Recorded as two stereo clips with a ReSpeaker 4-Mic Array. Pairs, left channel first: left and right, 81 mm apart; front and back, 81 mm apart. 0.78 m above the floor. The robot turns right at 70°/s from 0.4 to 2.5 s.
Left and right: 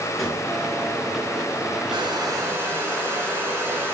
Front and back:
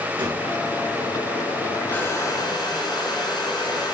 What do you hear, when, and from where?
0.2 s a gunshot: straight behind, 5.5 m
1.9 s a hair dryer: 70° right, 4 m; by 3.9 s 30° right, 4 m